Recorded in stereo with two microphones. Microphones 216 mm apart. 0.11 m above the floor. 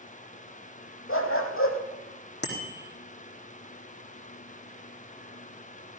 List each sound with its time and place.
1.1 s a dog barking: 75° left (ahead or behind), 2 m
2.4 s a bicycle bell: 50° left (ahead or behind), 3.5 m